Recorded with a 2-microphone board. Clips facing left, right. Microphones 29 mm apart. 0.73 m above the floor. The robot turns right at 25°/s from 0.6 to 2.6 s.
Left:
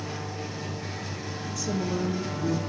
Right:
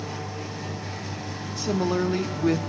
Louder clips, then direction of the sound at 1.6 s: Right 5 dB; 45° right (ahead or behind).